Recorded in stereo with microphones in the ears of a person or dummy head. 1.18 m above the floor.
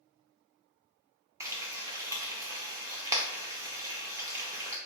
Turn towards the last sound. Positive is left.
turn(degrees=-15)  # may be behind; listen again after turning